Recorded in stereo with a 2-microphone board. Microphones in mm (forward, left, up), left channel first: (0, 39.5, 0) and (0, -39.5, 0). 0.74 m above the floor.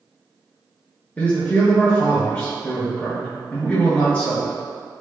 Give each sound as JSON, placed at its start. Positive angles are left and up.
{"t": 1.2, "sound": "a man speaking", "side_deg": 20, "distance_m": 0.7}